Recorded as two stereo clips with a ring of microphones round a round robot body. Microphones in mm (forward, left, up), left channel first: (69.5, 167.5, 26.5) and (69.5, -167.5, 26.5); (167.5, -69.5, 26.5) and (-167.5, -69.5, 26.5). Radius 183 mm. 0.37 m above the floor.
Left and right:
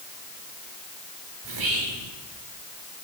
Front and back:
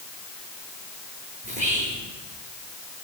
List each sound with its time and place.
1.4 s whispering: 110° right, 6 m